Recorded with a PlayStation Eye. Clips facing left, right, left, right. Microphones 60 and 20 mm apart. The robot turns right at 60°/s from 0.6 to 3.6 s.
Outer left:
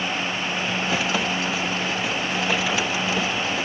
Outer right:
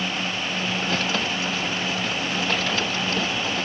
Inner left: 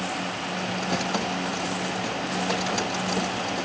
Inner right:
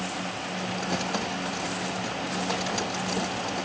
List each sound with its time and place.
Only background noise.